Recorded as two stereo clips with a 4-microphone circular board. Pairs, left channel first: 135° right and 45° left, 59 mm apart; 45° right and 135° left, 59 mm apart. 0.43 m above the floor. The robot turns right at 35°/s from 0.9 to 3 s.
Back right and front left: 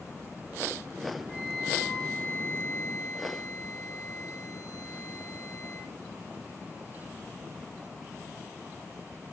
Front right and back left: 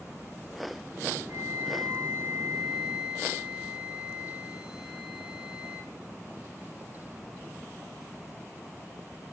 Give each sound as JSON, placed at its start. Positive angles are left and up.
{"t": 1.3, "sound": "a flute", "azimuth_deg": 145, "distance_m": 3.5}